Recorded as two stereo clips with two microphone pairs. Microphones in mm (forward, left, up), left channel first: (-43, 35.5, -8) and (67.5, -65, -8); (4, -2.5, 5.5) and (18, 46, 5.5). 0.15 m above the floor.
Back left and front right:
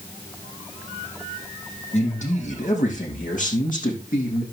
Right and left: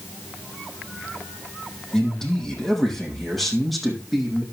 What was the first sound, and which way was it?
A man speaking, 175° left.